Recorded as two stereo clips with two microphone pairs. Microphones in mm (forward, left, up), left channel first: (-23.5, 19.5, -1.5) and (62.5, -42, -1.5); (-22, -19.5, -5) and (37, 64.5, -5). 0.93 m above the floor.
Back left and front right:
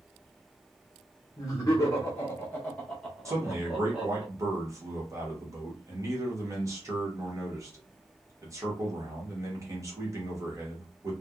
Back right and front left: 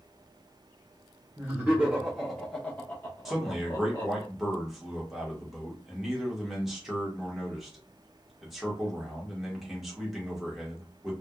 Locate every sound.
1.4 s laughter: 105° left, 1.0 m; by 4.2 s 110° right, 1.1 m
3.2 s a man speaking: 25° right, 1.0 m